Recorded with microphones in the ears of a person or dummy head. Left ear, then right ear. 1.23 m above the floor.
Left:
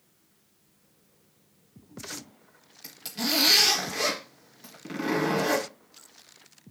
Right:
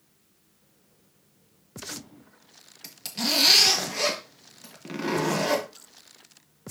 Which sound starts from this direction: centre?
A zipper, at 2.8 s.